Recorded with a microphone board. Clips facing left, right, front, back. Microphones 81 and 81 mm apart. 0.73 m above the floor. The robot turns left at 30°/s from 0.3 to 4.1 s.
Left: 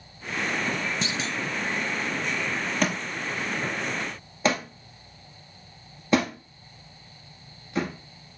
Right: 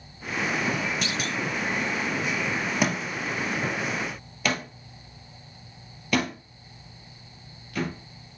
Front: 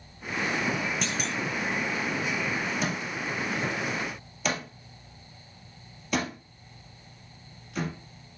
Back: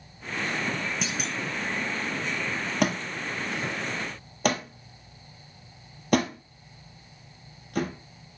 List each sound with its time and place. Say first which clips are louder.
1.0 s a clunk: even, front 1 dB; 100° left, 0.6 m; by 1.4 s 90° left, 0.6 m
2.8 s a thud: right 1 dB, back 3 dB; 170° right, 1.9 m; by 7.9 s 150° left, 1.9 m